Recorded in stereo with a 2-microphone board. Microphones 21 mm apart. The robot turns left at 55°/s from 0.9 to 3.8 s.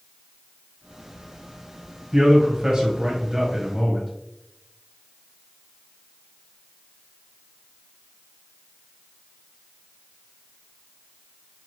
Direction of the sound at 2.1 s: 75° right.